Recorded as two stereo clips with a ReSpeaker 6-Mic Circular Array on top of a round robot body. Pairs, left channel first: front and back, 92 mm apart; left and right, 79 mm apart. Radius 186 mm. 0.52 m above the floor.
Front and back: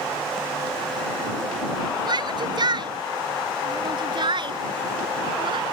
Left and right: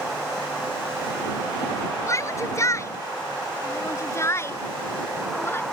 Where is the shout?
140° left; by 5.6 s 150° left.